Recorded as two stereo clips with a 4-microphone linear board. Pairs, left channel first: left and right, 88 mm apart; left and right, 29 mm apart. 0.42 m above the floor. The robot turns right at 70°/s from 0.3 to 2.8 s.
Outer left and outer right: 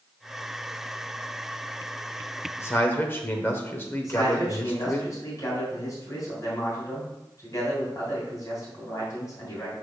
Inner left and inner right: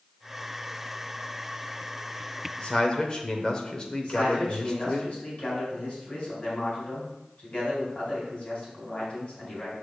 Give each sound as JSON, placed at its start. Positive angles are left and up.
{"t": 2.6, "sound": "a man speaking", "side_deg": 35, "distance_m": 1.1}
{"t": 4.0, "sound": "a man speaking", "side_deg": 40, "distance_m": 3.0}